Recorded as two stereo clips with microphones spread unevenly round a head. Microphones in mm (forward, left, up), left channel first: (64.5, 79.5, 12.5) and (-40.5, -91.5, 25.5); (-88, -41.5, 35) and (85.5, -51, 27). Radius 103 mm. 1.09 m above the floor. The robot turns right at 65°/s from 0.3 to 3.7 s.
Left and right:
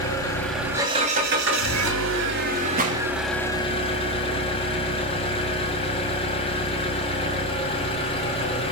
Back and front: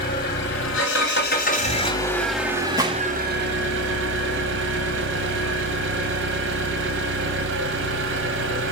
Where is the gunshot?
75° right, 1.2 m; by 3.1 s 55° right, 1.2 m.